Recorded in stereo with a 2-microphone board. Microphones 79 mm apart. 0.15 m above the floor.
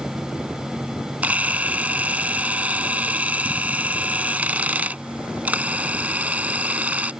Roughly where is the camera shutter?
Centre.